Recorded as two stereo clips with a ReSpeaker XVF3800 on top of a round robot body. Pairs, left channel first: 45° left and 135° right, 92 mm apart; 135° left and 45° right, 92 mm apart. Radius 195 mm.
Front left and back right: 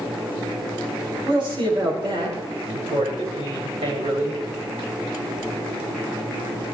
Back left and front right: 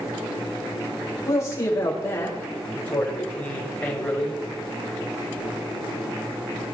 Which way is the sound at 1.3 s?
170° right.